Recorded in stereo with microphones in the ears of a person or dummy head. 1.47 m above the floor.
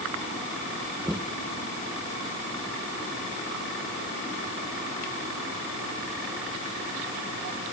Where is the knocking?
5° right (ahead or behind).